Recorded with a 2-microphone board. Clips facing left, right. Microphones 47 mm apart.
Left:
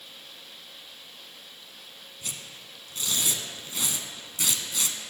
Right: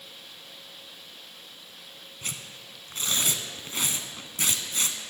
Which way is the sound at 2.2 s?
45° right (ahead or behind).